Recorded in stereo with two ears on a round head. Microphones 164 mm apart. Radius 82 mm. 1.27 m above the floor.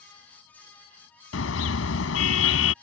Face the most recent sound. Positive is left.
turn(degrees=85)